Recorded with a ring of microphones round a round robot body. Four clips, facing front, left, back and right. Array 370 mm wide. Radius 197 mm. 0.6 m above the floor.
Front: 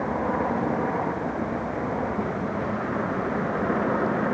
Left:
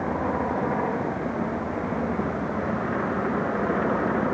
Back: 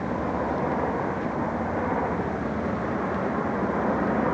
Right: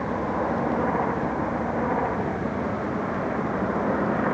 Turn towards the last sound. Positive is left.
No sound to turn to.